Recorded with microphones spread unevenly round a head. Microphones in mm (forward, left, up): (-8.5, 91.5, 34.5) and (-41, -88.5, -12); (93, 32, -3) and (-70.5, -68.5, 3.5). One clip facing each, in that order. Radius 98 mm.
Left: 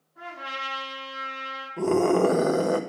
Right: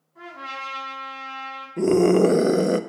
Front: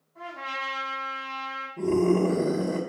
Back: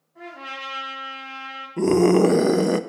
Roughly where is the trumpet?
Right.